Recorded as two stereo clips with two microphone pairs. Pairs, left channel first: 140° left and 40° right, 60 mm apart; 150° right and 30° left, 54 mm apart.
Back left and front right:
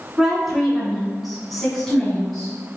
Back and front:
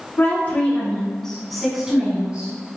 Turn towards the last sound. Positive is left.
turn(degrees=65)